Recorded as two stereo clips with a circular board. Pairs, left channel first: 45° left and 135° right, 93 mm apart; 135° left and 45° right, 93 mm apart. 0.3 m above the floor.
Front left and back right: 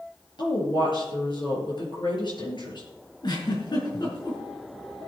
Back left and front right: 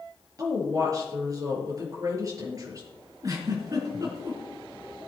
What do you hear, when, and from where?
0.4 s a woman speaking: 10° left, 5.5 m
3.2 s a giggle: 5° left, 4 m